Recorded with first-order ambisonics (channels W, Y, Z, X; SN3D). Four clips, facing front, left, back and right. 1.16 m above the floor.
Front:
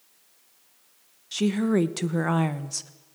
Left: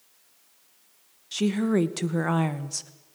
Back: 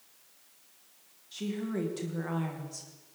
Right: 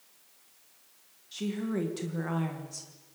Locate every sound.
1.3 s a woman speaking: 40° left, 1.2 m